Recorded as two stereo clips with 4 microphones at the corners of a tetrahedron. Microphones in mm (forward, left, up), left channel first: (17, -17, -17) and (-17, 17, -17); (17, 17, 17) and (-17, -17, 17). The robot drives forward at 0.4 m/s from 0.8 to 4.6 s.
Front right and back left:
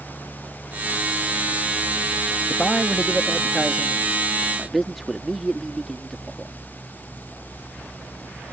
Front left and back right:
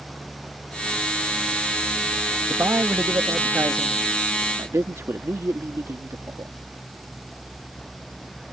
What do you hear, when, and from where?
2.5 s a man speaking: 105° right; by 6.5 s 130° right